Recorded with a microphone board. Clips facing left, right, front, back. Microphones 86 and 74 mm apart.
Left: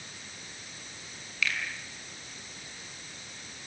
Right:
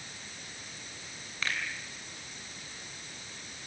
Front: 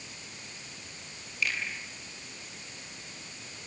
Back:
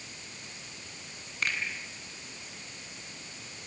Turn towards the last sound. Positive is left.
turn(degrees=-145)